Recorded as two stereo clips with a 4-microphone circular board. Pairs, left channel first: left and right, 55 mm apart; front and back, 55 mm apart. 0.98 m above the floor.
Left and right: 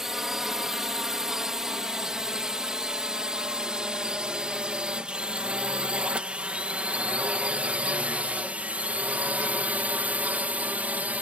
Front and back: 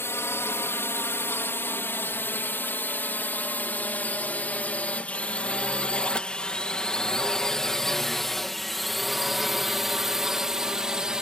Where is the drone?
10° right; by 11.2 s 115° right.